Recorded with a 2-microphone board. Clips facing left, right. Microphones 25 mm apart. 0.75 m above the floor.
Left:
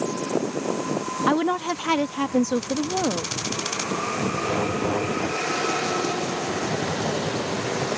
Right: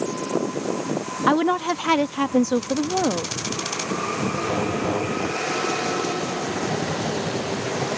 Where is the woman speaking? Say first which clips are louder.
Right 3 dB; 15° right (ahead or behind).